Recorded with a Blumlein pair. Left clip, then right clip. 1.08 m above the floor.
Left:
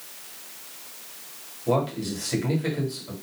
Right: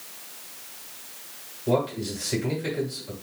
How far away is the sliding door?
I don't hear a sliding door.